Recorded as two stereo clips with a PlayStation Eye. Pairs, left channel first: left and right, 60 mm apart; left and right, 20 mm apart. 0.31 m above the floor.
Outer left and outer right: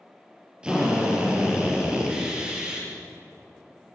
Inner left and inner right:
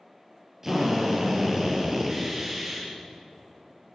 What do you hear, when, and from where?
0.6 s a drill: 15° right (ahead or behind), 7.5 m